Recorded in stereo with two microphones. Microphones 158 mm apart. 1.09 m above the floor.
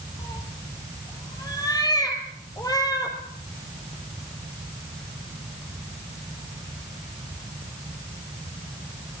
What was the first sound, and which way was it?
A cat meowing, 25° left (ahead or behind).